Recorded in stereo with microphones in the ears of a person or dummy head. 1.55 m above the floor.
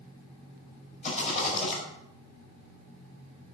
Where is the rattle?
40° left (ahead or behind), 4 m.